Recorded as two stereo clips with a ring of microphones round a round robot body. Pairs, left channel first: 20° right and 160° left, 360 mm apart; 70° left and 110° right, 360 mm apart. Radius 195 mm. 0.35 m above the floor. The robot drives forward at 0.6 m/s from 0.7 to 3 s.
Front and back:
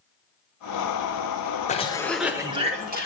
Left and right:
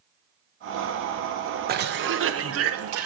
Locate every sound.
1.7 s a cough: 75° right, 0.9 m; by 3.1 s 145° right, 1.1 m